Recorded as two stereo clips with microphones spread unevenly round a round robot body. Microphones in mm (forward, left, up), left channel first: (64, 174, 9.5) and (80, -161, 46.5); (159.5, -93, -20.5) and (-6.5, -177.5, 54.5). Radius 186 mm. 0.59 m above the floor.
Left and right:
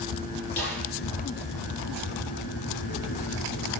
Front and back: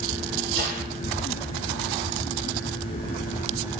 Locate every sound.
0.6 s a snare drum: 165° left, 7 m